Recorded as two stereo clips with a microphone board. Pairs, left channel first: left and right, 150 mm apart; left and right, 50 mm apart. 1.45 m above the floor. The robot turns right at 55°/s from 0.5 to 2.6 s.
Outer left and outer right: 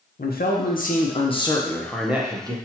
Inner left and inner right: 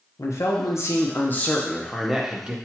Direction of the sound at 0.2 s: 100° left.